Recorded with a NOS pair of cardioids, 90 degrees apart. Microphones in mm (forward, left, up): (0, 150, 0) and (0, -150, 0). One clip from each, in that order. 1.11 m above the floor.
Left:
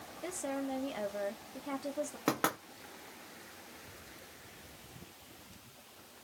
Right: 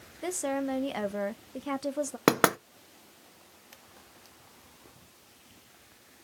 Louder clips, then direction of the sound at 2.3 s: Right 10 dB; 50° right.